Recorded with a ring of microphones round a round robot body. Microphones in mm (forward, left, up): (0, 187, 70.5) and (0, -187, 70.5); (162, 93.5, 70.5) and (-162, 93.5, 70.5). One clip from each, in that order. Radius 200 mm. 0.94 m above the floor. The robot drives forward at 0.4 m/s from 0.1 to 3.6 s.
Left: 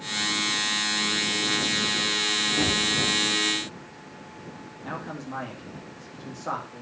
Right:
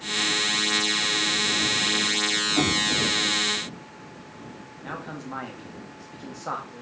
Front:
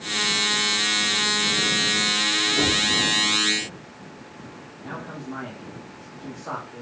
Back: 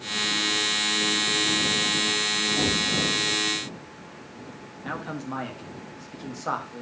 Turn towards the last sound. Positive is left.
turn(degrees=-175)